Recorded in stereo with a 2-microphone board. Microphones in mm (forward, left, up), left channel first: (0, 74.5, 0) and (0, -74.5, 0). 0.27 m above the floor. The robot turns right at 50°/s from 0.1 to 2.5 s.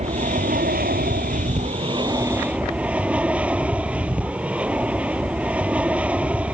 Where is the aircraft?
130° right; by 6.5 s 10° right.